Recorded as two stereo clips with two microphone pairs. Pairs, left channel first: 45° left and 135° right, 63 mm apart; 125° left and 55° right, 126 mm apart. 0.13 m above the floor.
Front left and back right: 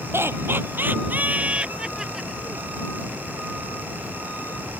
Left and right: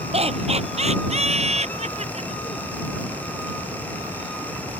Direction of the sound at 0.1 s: 90° right.